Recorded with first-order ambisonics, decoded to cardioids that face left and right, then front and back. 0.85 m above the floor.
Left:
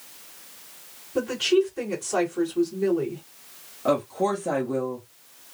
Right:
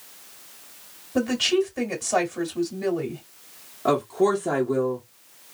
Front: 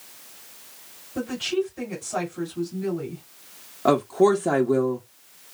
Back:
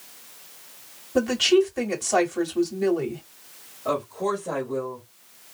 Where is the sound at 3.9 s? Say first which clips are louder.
Right 2 dB, front 7 dB; 15° right, 1.2 m.